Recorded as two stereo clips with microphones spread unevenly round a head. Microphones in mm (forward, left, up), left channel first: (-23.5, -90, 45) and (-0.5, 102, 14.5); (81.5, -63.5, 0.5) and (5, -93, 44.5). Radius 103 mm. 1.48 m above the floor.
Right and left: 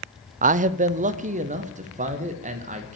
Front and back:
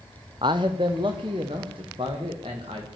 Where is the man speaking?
130° left, 0.5 m; by 3.0 s 135° left, 2 m.